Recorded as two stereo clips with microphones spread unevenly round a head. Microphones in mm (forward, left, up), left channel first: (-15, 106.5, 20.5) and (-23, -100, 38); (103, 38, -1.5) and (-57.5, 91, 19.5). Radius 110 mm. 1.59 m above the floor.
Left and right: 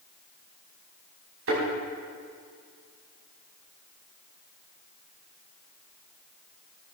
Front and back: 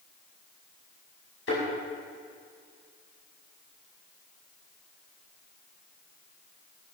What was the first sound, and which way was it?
A thud, 65° right.